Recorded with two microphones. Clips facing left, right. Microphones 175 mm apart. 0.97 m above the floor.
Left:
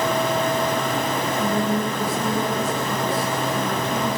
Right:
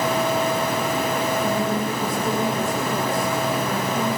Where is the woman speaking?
80° left, 7.5 m.